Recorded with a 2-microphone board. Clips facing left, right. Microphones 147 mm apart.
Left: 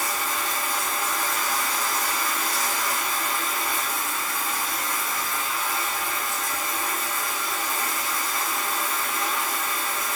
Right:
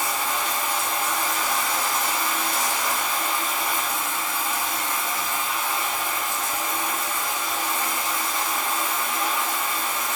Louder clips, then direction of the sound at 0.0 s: Right 2 dB; 80° right.